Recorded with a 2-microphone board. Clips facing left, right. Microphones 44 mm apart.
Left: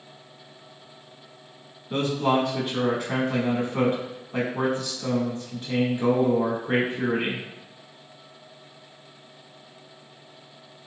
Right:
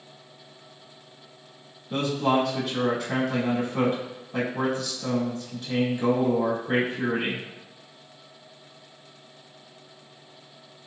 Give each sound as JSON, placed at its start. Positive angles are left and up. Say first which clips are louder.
{"t": 1.9, "sound": "a man speaking", "louder": "left 1 dB", "side_deg": 30, "distance_m": 1.4}